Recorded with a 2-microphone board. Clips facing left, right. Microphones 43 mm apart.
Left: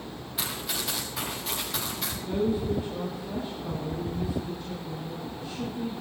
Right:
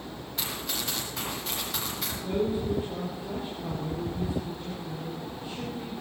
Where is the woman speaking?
25° right (ahead or behind), 6 m.